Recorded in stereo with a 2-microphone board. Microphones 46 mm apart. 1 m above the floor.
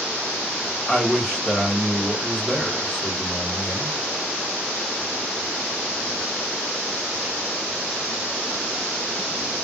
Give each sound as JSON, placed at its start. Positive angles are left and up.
{"t": 0.9, "sound": "a man speaking", "side_deg": 10, "distance_m": 1.3}